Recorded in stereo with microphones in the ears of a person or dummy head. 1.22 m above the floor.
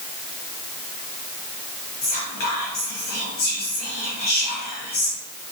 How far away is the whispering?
About 1.0 m.